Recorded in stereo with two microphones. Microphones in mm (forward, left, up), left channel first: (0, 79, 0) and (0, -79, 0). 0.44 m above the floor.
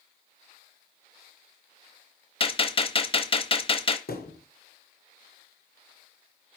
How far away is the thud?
About 2.0 m.